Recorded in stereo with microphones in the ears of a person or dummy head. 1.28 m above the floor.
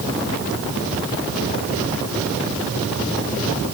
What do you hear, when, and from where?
Only background noise.